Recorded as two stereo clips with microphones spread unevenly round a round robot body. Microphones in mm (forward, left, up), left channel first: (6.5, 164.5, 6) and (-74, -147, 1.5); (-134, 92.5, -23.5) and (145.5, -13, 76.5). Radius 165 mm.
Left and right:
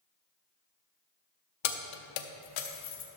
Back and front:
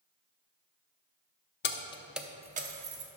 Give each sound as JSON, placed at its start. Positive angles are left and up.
{"t": 1.6, "sound": "keys jangling", "azimuth_deg": 115, "distance_m": 0.7}